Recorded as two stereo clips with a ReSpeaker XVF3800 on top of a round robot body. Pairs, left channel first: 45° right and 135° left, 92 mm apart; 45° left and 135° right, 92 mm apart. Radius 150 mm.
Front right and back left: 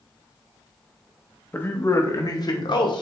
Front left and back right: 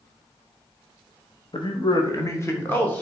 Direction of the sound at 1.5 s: 20° left.